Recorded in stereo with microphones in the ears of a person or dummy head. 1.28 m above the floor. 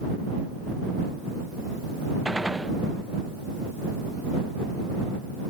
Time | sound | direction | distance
2.2 | a gunshot | centre (ahead or behind) | ?